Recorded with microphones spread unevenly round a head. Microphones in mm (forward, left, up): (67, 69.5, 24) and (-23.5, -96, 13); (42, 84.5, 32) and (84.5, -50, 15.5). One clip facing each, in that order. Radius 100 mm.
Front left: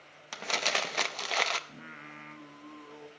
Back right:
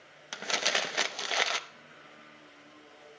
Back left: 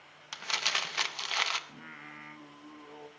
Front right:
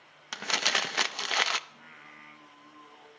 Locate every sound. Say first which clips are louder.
0.3 s crumpling: even, front right 6 dB; 35° right, 0.6 m
1.7 s singing: front left 6 dB, back left 4 dB; 65° left, 1.0 m